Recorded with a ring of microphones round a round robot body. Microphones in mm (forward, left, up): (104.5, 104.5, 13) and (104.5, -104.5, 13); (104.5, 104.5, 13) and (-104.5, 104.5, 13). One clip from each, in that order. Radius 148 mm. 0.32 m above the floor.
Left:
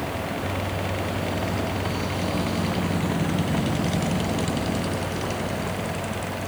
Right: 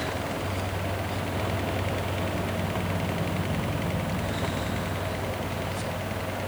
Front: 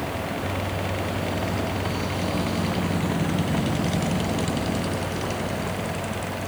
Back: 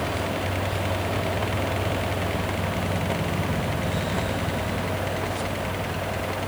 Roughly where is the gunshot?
I don't hear a gunshot.